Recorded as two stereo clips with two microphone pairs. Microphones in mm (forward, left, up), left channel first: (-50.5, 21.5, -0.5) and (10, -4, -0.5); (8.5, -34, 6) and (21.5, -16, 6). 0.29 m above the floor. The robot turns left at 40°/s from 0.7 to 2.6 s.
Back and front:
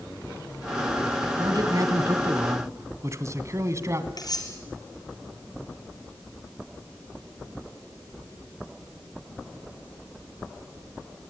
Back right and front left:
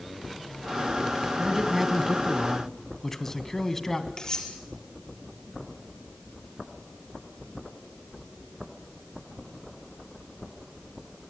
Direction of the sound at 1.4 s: 5° right.